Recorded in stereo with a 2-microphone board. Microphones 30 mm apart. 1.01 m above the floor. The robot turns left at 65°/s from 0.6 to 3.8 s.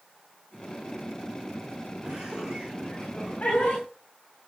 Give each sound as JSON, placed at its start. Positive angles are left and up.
{"t": 2.0, "sound": "laughter", "side_deg": -45, "distance_m": 7.0}